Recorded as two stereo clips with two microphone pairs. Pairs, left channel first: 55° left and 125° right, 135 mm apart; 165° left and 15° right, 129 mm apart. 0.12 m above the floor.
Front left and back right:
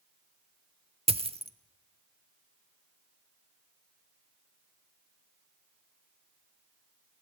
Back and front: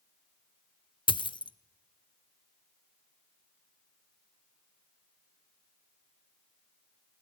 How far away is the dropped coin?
About 0.8 m.